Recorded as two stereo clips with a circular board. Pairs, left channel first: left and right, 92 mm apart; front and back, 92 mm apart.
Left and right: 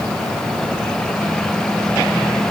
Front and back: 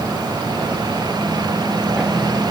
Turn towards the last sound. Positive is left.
No sound to turn to.